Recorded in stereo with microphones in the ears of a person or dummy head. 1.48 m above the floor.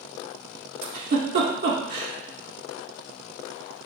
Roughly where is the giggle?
Right.